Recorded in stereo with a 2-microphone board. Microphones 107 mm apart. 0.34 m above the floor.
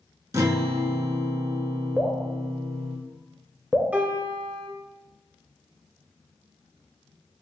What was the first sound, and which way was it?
A guitar, 30° right (ahead or behind).